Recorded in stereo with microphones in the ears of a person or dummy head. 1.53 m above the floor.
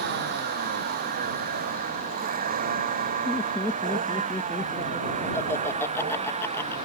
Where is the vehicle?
55° right (ahead or behind); by 6.9 s 35° right (ahead or behind).